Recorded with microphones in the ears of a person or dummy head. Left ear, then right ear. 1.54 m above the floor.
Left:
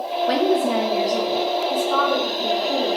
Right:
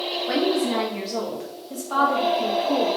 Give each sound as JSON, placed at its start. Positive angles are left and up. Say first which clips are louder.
{"t": 0.3, "sound": "a woman speaking", "louder": "left 4 dB", "side_deg": 25, "distance_m": 0.6}